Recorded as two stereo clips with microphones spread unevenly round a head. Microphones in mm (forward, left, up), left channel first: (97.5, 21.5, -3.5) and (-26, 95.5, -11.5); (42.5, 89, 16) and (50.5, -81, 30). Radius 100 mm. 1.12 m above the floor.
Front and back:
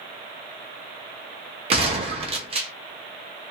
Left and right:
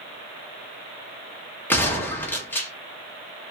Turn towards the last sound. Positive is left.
turn(degrees=160)